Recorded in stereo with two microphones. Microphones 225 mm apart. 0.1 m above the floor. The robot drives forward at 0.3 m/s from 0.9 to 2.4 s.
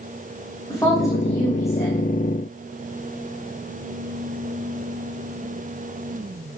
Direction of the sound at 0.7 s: 15° left (ahead or behind).